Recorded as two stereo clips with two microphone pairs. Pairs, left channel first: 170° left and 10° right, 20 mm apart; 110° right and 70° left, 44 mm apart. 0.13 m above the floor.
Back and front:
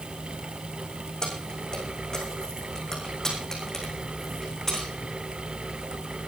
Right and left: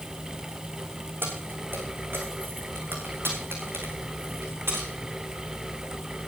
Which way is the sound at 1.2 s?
115° left.